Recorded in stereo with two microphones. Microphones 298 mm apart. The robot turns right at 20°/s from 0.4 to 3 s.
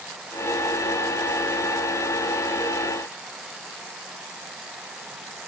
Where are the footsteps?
I don't hear footsteps.